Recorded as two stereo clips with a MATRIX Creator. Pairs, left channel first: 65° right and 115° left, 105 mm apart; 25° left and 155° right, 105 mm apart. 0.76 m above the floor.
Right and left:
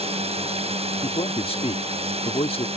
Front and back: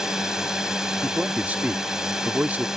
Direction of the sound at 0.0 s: 120° left.